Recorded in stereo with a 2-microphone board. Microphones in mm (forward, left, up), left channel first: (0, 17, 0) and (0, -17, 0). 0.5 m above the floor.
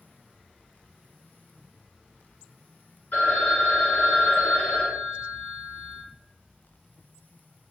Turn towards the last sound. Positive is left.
turn(degrees=60)  # may be behind; listen again after turning